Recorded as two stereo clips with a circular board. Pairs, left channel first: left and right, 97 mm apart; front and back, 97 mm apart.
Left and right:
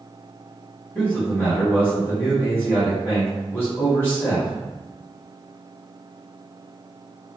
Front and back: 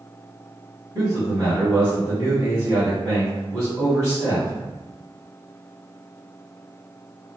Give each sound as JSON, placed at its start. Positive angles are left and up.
{"t": 0.9, "sound": "a man speaking", "azimuth_deg": 150, "distance_m": 1.4}